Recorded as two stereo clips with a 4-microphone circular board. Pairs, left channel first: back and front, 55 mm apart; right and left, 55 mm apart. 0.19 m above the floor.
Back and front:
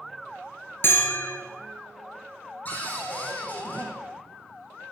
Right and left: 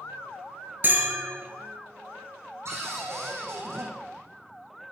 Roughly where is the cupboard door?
Behind left.